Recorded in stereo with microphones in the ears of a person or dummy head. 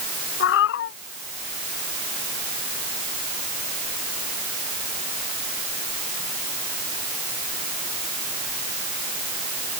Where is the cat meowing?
65° left (ahead or behind).